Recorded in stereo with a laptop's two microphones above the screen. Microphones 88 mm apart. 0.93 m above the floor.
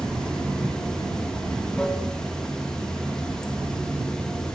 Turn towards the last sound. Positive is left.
turn(degrees=10)  # may be behind; listen again after turning